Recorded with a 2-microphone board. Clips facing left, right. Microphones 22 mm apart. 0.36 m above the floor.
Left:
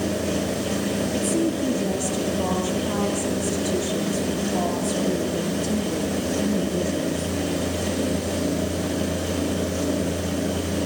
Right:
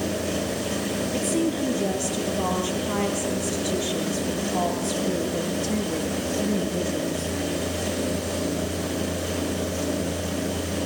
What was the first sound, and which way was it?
A woman speaking, 50° right (ahead or behind).